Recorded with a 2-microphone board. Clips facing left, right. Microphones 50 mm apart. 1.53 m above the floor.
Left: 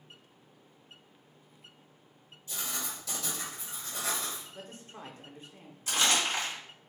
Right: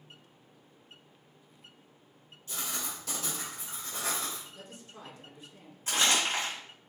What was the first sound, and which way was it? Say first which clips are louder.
Writing: even; 60° right (ahead or behind).